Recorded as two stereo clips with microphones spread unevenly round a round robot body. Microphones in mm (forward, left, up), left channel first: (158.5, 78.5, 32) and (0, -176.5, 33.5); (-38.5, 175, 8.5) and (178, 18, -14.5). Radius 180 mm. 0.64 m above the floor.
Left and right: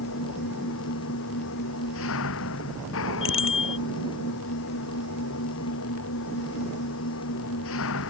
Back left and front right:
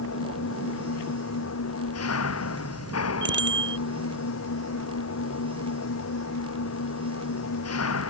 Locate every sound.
0.0 s an engine running: 115° left
3.2 s a bicycle bell: 10° left